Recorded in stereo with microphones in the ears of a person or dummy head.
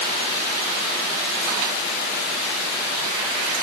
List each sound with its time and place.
Only background noise.